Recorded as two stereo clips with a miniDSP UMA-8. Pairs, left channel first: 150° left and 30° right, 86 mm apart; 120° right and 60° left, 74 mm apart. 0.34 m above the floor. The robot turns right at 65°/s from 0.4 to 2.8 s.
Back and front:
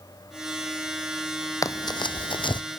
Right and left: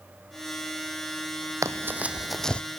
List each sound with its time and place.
1.6 s running footsteps: 105° left, 0.8 m; by 2.6 s 170° left, 0.8 m